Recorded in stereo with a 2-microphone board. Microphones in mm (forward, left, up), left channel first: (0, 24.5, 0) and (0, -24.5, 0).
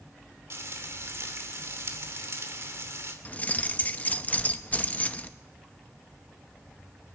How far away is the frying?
About 2.5 m.